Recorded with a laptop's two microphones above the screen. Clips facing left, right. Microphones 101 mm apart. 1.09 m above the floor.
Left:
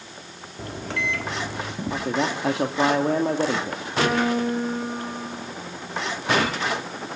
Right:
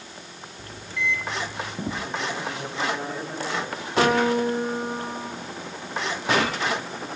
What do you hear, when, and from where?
0.6 s a microwave: 65° left (ahead or behind), 1.9 m
1.9 s a man speaking: 75° left (ahead or behind), 2 m
4.0 s a piano: 30° right (ahead or behind), 4 m